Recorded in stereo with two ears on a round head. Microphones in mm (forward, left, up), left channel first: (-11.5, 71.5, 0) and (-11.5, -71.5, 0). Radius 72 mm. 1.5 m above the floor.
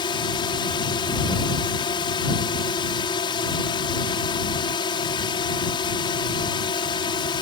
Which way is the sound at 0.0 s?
30° left (ahead or behind).